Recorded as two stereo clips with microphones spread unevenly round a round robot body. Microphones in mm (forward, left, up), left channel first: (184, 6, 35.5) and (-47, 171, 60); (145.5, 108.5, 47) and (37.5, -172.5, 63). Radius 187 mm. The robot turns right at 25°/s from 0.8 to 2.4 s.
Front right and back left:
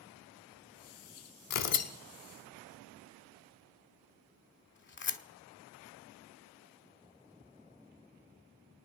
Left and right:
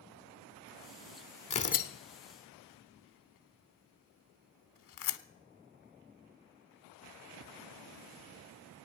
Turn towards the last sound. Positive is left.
turn(degrees=20)